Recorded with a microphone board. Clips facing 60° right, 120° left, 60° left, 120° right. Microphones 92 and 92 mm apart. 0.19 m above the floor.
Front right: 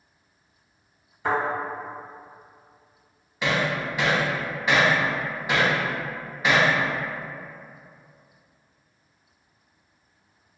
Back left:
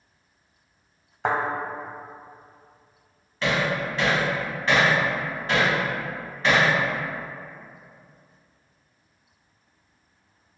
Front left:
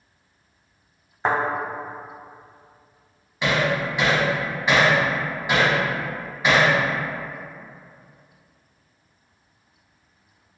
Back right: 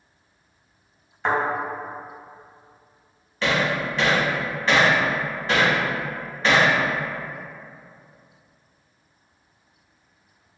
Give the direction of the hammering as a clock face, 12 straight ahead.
12 o'clock.